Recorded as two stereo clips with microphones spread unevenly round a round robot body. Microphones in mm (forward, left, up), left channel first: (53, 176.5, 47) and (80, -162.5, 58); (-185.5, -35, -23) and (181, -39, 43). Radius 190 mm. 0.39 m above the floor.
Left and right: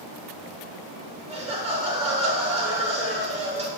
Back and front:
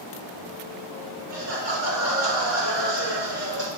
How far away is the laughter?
About 6.5 m.